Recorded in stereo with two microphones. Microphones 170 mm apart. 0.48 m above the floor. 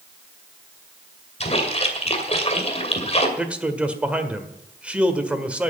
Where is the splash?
40° left (ahead or behind), 2 m.